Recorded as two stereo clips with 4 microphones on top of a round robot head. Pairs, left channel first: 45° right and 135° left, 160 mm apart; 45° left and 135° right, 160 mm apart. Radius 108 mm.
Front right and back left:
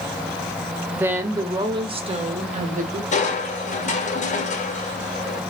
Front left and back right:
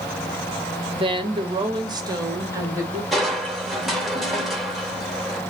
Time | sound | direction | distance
0.9 | a woman speaking | 150° right | 1.2 m
3.1 | crushing | 45° right | 1.6 m